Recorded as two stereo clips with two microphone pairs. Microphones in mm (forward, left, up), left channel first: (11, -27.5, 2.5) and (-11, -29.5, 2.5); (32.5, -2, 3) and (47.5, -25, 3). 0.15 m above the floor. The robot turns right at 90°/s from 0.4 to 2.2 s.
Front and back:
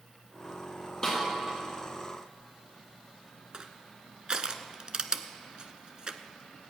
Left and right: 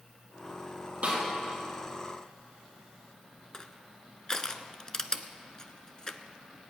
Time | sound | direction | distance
1.0 | a snare drum | 55° right | 5 m
3.5 | crushing | straight behind | 0.8 m